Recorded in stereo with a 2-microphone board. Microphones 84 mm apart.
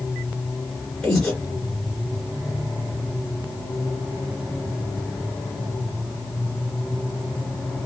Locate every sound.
1.0 s breathing: 10° left (ahead or behind), 1.7 m